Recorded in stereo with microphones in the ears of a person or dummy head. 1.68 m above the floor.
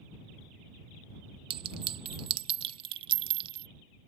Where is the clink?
25° right (ahead or behind).